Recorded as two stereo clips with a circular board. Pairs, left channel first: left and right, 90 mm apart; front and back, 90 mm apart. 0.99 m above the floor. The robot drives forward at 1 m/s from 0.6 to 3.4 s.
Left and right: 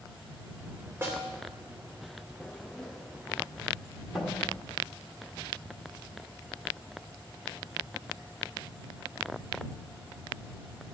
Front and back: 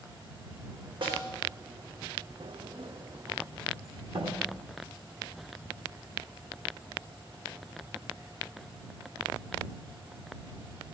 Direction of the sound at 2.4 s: 170° left.